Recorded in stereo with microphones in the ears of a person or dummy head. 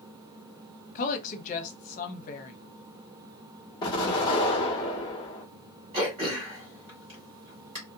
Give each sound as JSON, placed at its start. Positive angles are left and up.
{"t": 0.9, "sound": "a woman speaking", "side_deg": 40, "distance_m": 0.6}
{"t": 3.8, "sound": "an explosion", "side_deg": 25, "distance_m": 1.0}
{"t": 5.9, "sound": "throat clearing", "side_deg": -20, "distance_m": 1.5}